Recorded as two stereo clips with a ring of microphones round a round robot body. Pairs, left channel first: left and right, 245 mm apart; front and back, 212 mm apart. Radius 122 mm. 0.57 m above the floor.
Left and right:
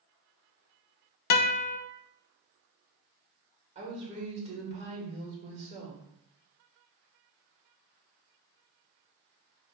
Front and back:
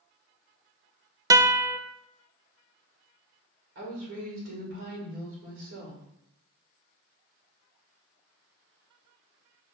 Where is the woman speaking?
150° right, 2 m.